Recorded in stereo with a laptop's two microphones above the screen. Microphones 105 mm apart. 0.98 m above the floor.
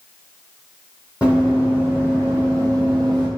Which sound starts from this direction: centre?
Running footsteps, at 1.2 s.